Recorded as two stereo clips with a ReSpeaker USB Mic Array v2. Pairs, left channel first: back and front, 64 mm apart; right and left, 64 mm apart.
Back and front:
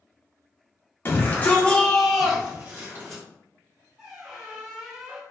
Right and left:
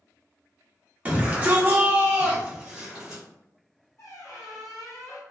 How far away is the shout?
About 0.9 m.